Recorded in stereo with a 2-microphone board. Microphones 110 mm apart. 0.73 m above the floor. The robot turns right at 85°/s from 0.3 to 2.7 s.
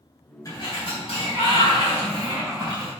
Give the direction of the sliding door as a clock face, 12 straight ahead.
11 o'clock.